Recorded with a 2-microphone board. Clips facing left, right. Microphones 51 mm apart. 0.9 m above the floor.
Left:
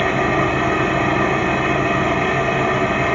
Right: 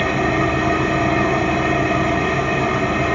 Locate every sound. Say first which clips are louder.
0.0 s an engine running: left 1 dB; 25° left (ahead or behind), 0.9 m